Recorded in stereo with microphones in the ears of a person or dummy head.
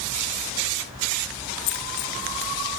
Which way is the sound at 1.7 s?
40° left (ahead or behind).